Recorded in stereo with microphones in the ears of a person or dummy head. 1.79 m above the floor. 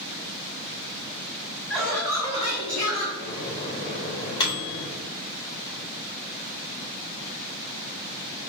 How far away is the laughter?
About 1.4 m.